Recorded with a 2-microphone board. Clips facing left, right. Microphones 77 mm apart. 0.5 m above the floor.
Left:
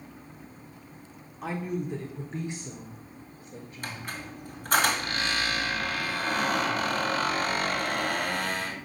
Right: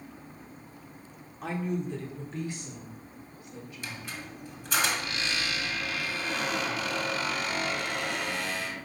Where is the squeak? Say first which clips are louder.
Left 4 dB; 50° left (ahead or behind), 2.0 m.